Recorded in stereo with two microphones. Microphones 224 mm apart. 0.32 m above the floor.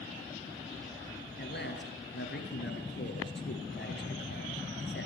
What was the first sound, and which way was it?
A man speaking, 50° left (ahead or behind).